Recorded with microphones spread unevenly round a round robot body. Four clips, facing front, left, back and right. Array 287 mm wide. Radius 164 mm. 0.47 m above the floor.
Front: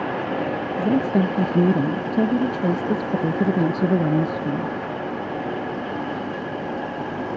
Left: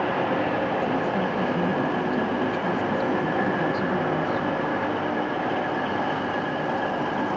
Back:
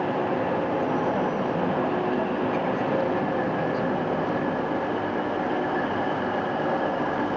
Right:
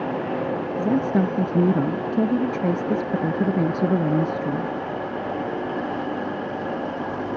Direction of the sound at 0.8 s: 40° right.